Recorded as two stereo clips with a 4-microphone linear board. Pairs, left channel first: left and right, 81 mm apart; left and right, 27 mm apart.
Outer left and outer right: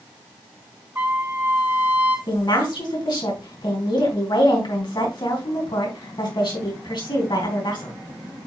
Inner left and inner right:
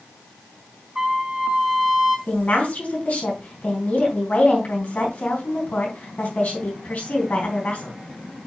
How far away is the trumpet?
About 3 m.